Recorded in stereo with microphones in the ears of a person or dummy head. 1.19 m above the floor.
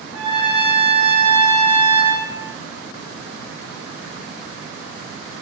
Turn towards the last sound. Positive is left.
turn(degrees=-70)  # may be behind; listen again after turning